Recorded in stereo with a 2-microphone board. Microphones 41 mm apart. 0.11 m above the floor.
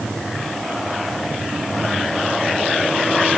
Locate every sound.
Only background noise.